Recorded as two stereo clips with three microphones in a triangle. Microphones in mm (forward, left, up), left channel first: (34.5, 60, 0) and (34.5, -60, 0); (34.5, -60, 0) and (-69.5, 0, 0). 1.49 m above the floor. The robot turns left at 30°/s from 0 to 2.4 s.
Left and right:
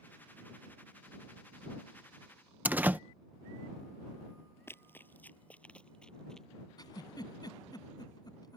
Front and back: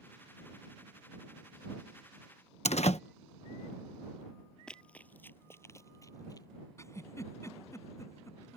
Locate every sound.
2.6 s a door slam: 15° right
4.7 s running footsteps: 45° left; by 6.5 s 5° left
6.8 s a giggle: 35° left